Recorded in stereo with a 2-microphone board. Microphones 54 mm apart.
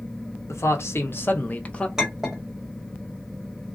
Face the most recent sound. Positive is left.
turn(degrees=-10)  # may be behind; listen again after turning